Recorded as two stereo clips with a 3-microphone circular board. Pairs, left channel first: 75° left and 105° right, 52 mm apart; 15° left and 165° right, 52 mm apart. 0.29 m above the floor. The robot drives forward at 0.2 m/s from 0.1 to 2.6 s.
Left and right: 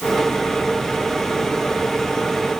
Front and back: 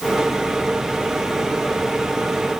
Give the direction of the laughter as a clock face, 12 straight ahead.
No laughter in this recording.